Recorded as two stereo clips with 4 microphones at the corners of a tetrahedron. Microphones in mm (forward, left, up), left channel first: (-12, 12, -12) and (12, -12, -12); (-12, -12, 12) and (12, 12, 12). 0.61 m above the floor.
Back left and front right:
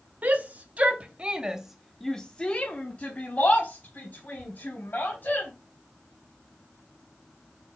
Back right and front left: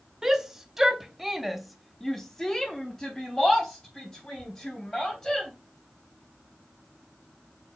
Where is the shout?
30° right, 1.1 m; by 5.5 s 155° left, 2 m.